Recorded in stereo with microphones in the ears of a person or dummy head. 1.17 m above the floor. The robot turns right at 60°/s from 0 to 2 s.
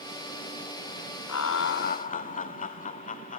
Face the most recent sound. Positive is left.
turn(degrees=135)